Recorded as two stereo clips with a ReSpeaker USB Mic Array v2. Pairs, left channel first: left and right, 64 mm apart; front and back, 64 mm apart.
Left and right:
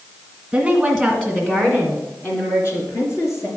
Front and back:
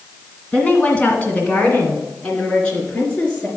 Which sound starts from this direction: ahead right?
A woman speaking, at 0.5 s.